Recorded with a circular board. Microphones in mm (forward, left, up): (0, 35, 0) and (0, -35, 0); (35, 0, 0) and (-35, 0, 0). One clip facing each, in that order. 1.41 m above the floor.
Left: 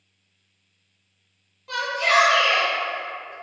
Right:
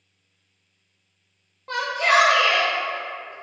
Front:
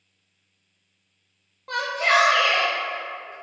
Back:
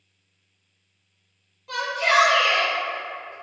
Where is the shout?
40° right, 0.8 m; by 3.3 s 60° right, 1.9 m.